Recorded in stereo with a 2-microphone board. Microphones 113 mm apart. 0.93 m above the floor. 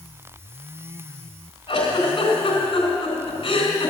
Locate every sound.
1.7 s a giggle: 55° left (ahead or behind), 3 m